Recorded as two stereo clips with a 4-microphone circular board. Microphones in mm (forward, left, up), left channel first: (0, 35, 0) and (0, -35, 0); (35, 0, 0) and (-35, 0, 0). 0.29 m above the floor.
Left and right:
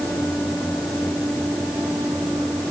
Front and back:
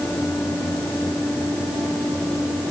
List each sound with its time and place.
Only background noise.